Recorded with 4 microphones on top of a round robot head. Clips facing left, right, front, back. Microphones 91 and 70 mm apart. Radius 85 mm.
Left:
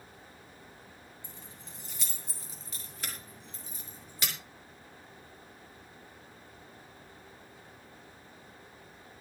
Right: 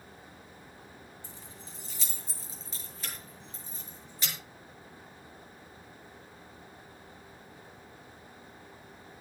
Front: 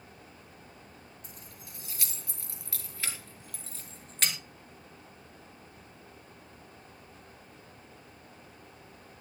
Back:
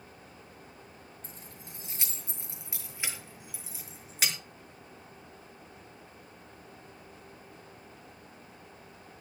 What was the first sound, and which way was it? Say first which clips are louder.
Keys jangling: right 2 dB, back 2 dB; 125° left.